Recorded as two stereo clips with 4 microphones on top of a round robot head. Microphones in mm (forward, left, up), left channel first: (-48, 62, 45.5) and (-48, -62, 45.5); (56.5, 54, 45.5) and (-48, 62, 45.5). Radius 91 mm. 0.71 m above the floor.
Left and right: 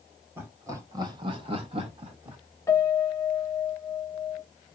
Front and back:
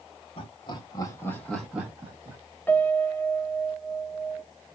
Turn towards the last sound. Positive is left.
turn(degrees=55)